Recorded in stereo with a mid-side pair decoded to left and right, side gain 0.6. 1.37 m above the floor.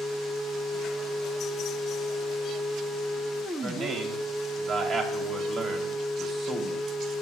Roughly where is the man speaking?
Ahead right.